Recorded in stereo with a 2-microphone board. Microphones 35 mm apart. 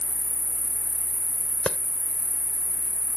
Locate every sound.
0.0 s an insect: 40° left (ahead or behind)
1.7 s a clap: 30° left (ahead or behind)